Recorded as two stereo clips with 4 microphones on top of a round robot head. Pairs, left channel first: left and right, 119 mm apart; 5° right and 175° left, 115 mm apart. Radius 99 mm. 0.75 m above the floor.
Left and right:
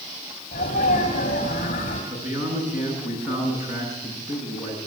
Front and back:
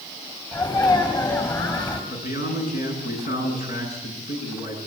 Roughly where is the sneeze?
Ahead left.